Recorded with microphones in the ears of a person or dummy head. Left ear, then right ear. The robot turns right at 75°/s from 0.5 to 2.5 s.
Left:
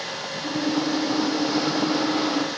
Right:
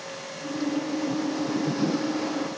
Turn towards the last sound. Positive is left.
No sound to turn to.